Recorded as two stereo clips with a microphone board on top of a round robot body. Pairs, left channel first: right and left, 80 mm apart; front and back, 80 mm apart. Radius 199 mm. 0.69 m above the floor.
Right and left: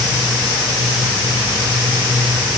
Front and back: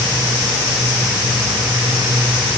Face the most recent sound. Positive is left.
No sound to turn to.